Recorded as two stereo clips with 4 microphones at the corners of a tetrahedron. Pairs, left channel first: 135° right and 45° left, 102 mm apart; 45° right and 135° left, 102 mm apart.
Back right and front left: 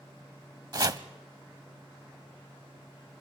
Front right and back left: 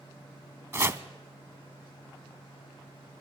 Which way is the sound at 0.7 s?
80° left.